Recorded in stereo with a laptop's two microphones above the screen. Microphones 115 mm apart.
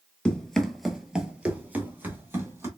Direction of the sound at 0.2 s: 10° left (ahead or behind).